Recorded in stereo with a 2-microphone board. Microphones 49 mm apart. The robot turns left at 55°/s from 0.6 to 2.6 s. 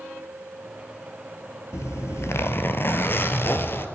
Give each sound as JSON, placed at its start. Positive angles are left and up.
{"t": 1.7, "sound": "a zipper", "azimuth_deg": 100, "distance_m": 0.8}